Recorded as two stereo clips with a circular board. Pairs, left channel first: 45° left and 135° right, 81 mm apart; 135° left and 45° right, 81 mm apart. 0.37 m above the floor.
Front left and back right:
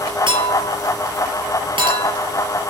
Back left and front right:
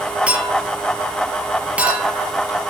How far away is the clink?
About 5.5 m.